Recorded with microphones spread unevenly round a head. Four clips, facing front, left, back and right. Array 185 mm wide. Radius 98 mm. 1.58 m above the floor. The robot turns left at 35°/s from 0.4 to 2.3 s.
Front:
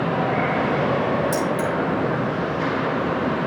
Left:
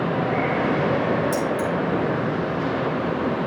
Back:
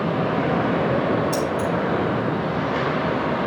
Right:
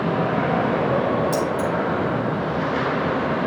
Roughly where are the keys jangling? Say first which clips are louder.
Right 1 dB, even; ahead left.